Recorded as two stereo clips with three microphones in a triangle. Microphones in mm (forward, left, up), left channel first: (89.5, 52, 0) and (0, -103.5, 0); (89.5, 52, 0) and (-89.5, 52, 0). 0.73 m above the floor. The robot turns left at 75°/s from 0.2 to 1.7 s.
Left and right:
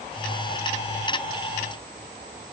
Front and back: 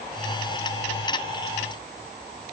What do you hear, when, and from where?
Only background noise.